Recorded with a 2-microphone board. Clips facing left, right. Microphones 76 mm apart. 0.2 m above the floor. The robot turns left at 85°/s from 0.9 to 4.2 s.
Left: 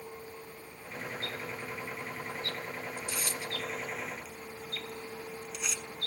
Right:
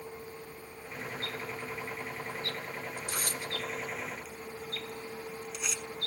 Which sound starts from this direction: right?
Tearing paper, at 3.0 s.